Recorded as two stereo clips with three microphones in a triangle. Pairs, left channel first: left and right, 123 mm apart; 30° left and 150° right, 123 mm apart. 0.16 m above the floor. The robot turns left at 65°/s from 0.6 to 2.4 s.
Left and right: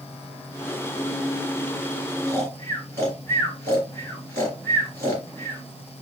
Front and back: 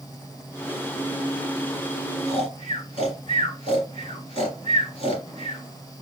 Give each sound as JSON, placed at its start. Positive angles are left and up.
{"t": 2.3, "sound": "snoring", "azimuth_deg": 35, "distance_m": 2.5}